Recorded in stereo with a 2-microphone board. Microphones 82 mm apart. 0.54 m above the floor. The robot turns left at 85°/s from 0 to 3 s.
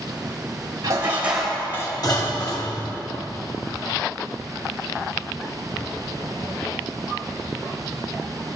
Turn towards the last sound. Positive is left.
turn(degrees=50)